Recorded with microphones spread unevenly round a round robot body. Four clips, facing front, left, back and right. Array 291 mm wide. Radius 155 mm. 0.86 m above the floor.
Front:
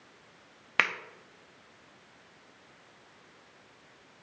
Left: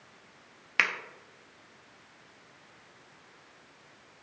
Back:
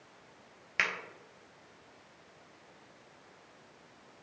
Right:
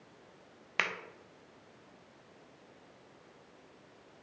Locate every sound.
0.8 s a finger snap: 15° left, 0.7 m